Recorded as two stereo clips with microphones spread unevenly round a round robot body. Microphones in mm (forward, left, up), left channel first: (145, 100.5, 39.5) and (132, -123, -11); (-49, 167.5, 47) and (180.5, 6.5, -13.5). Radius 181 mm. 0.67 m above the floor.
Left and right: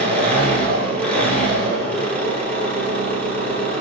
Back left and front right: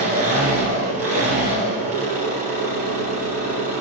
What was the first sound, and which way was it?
An engine running, 5° left.